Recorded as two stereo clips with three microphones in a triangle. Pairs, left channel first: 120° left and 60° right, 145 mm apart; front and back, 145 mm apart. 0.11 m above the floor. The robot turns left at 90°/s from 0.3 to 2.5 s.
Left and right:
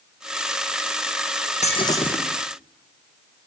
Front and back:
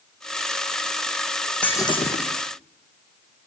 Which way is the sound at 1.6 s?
80° left.